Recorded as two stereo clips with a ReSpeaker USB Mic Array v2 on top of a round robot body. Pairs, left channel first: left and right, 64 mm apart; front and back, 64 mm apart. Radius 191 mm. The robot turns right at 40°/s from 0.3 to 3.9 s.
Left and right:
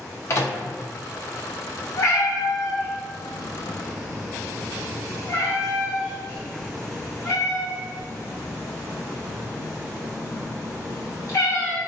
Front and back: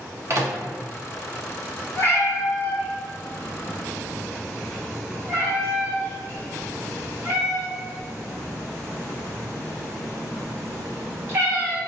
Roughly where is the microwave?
Behind left.